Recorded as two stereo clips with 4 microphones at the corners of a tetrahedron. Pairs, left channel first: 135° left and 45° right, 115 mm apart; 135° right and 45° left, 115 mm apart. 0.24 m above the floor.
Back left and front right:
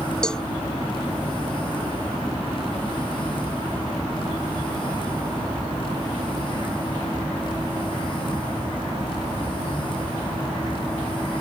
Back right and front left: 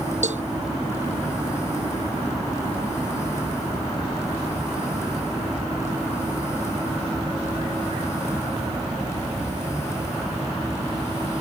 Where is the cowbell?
50° left.